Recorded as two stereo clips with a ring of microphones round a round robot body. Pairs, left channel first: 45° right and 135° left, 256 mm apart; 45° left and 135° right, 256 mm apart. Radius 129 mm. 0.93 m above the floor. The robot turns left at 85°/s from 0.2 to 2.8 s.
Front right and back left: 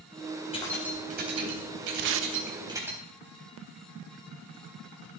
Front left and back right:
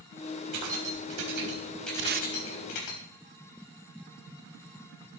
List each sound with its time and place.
0.5 s keys jangling: 115° right, 4 m; by 3.0 s 55° left, 4 m
2.0 s tape being pulled: 175° right, 0.7 m; by 2.3 s 160° left, 0.7 m